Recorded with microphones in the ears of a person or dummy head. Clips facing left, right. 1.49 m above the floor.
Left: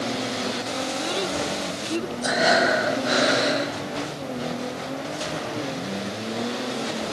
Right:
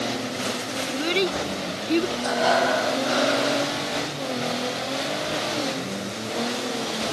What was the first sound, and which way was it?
A child speaking, 35° right (ahead or behind).